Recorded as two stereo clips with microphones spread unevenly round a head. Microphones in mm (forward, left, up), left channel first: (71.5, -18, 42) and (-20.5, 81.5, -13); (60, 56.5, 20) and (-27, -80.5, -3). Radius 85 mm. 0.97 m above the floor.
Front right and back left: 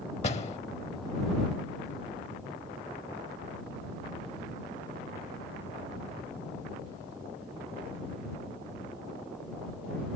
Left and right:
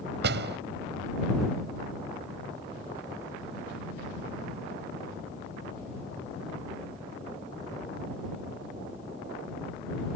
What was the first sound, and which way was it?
A door slam, 100° right.